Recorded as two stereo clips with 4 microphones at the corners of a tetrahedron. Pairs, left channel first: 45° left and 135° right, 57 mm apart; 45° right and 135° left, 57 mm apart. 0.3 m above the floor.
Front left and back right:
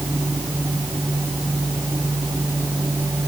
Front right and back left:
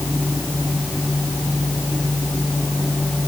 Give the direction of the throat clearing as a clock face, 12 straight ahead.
No throat clearing in this recording.